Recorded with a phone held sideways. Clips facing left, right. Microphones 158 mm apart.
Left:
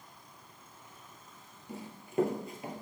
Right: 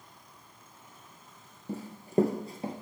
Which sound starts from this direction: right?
Running footsteps, at 1.7 s.